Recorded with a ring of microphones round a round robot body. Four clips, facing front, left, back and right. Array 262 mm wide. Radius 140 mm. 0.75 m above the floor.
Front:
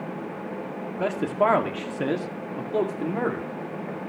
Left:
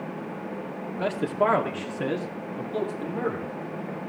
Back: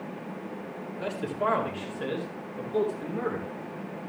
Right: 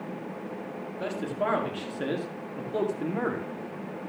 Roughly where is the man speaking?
Ahead left.